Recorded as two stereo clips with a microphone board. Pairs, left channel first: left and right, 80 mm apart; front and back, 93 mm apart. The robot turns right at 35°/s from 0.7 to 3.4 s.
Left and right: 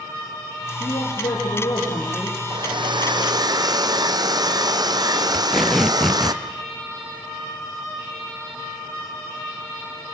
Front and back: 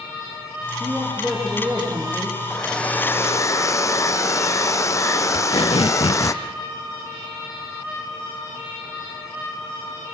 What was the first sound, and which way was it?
A man speaking, 75° left.